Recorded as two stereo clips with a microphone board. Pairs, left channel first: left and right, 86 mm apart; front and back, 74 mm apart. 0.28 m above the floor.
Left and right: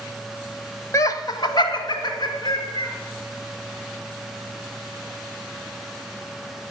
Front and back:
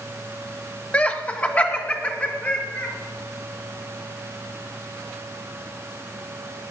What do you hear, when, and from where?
0.9 s laughter: 60° left, 1.2 m; by 2.9 s 70° left, 4 m